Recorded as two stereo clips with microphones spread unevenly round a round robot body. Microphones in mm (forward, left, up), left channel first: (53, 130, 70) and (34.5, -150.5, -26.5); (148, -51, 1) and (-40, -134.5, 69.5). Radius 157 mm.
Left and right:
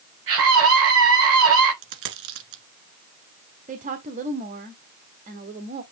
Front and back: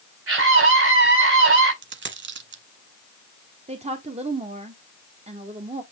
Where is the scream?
135° right, 5 m.